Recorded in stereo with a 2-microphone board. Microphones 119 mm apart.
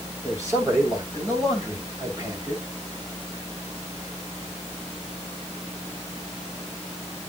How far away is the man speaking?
About 8 m.